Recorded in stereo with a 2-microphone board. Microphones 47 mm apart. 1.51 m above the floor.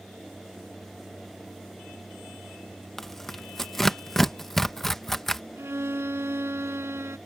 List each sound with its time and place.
3.0 s tearing paper: 5° left (ahead or behind)
5.6 s a violin: 65° right (ahead or behind)